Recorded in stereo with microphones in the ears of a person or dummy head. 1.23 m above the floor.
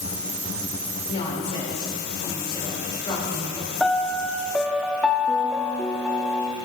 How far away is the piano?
About 0.7 m.